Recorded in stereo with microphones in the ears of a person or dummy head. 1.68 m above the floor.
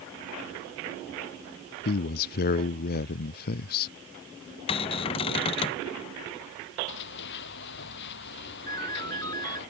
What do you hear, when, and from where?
1.9 s a man speaking: 50° left (ahead or behind)
4.7 s a cupboard door: 30° left (ahead or behind)
6.9 s running footsteps: 65° left (ahead or behind); by 9.7 s 60° left (ahead or behind)
8.7 s a ringtone: 20° left (ahead or behind)